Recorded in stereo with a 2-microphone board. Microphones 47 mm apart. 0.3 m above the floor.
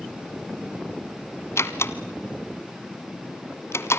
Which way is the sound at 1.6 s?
70° left (ahead or behind).